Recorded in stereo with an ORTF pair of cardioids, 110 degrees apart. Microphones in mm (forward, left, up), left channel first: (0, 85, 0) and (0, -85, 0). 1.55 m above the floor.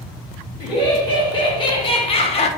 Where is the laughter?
25° left, 2 m; by 2.5 s 50° left, 0.7 m.